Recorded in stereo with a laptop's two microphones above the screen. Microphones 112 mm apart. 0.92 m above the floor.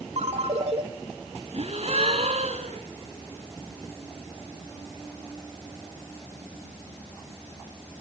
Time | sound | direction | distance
0.2 | a ringtone | 70° right (ahead or behind) | 1.6 m
1.5 | a gasp | 65° right (ahead or behind) | 1.9 m